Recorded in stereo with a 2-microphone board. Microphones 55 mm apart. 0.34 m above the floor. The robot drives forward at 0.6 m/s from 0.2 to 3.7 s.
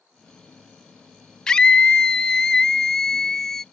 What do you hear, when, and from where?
1.5 s a scream: 15° left (ahead or behind); by 3.6 s 5° left (ahead or behind)